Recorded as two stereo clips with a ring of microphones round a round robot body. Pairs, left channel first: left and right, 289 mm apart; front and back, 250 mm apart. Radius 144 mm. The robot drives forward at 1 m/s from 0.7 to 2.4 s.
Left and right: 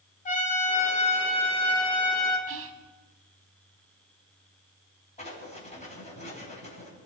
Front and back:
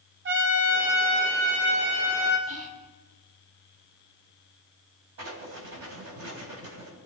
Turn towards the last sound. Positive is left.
turn(degrees=155)